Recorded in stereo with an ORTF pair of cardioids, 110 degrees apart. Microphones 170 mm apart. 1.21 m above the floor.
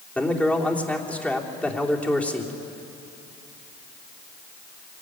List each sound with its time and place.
0.1 s a man speaking: 10° left, 3 m